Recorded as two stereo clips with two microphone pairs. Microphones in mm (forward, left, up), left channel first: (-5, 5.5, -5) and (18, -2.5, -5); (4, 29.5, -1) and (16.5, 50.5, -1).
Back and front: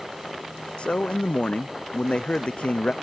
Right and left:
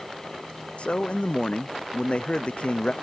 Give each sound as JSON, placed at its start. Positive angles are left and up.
{"t": 0.8, "sound": "a man speaking", "azimuth_deg": -160}